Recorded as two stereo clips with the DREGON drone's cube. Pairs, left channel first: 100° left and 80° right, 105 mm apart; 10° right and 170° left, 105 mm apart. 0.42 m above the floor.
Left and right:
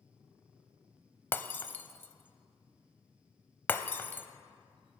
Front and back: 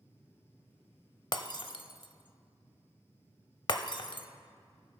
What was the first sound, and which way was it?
Breaking glass, 30° left.